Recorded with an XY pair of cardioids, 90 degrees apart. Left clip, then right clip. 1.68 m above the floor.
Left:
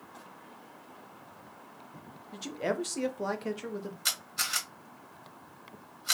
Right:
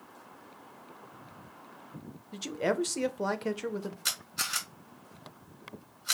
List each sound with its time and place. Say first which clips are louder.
2.3 s a man speaking: right 2 dB; 30° right, 0.6 m
4.0 s a camera shutter: left 2 dB; 5° left, 2.5 m